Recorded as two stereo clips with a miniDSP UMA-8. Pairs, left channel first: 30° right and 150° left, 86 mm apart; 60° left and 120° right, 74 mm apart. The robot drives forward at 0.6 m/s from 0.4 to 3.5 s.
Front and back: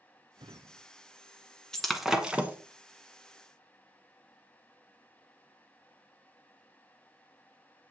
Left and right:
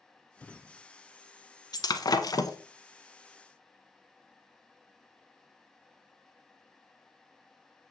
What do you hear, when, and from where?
0.4 s a drawer: 125° left, 0.8 m; by 0.8 s 140° left, 0.9 m
1.7 s breaking glass: 55° left, 1.2 m; by 2.6 s 85° left, 1.0 m